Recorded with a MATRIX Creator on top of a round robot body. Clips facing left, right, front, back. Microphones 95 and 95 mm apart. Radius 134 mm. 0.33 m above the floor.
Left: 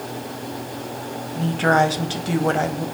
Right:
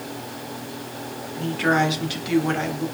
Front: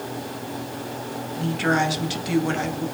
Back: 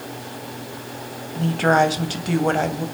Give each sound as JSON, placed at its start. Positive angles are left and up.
{"t": 1.4, "sound": "a woman speaking", "azimuth_deg": 140, "distance_m": 2.5}